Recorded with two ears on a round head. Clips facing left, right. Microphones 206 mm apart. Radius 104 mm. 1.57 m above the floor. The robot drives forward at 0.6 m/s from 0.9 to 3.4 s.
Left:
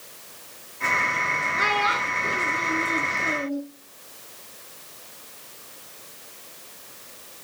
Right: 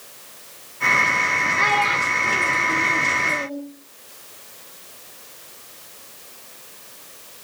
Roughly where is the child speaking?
Centre.